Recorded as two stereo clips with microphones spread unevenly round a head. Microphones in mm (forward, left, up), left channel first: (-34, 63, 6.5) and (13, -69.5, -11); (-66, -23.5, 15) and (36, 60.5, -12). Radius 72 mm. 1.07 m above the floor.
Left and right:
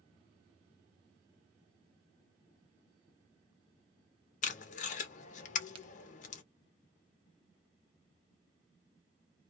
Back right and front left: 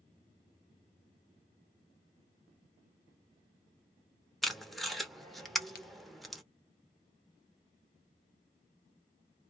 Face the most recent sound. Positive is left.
turn(degrees=-115)